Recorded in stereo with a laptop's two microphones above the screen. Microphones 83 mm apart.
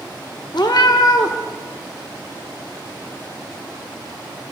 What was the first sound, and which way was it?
A cat meowing, 55° left (ahead or behind).